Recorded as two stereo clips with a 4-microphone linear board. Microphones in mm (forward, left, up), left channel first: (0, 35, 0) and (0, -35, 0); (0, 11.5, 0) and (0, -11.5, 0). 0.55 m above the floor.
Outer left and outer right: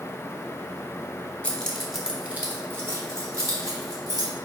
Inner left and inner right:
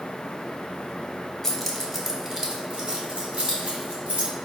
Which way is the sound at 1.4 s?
15° left (ahead or behind).